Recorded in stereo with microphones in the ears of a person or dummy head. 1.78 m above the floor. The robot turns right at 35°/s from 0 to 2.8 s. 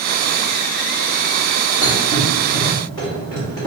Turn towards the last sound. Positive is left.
turn(degrees=20)  # may be behind; listen again after turning